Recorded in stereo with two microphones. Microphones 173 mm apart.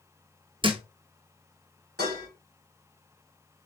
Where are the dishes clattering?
70° right (ahead or behind), 2.5 m.